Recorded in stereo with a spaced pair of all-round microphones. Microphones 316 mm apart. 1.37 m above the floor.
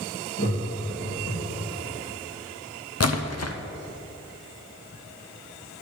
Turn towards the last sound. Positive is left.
turn(degrees=55)  # may be behind; listen again after turning